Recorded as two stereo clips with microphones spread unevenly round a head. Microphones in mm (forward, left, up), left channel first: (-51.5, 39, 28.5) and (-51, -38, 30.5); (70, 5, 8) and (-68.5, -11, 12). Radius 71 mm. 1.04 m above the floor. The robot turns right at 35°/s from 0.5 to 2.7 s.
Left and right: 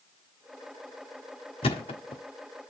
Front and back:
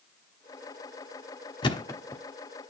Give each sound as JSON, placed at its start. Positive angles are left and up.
{"t": 1.6, "sound": "a thud", "azimuth_deg": 65, "distance_m": 1.3}